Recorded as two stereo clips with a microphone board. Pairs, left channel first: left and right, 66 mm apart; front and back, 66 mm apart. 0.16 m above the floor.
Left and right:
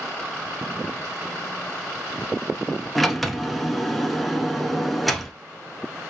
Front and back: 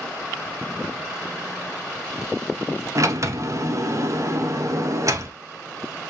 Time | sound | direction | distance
3.0 | a sliding door | straight behind | 0.6 m